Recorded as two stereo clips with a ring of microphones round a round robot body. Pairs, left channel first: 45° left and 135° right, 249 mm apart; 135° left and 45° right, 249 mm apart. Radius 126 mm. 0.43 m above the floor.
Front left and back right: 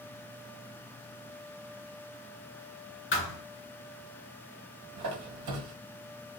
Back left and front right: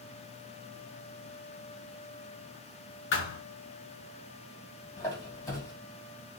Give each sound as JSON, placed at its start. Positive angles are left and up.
{"t": 3.1, "sound": "a thud", "azimuth_deg": 90, "distance_m": 2.5}
{"t": 5.0, "sound": "a squeak", "azimuth_deg": -150, "distance_m": 1.8}